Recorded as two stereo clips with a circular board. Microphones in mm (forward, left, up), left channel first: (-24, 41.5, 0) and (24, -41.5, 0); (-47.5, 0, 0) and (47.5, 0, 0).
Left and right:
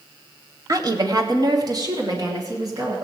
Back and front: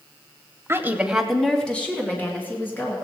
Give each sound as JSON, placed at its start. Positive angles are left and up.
{"t": 0.7, "sound": "a woman speaking", "azimuth_deg": -45, "distance_m": 1.1}